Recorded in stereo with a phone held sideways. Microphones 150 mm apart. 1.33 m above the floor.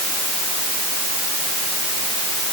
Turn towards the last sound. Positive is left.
No sound to turn to.